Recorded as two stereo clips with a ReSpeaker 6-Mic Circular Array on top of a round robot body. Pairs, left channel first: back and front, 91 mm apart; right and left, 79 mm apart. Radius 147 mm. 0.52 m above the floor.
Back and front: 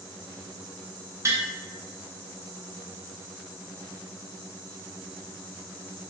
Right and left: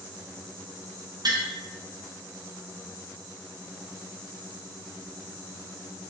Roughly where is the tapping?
Ahead left.